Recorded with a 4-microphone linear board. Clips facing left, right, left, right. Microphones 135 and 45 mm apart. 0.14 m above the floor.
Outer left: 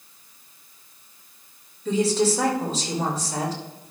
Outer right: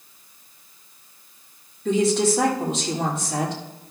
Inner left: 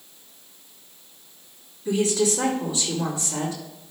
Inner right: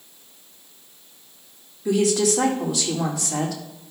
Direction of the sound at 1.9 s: 70° right (ahead or behind).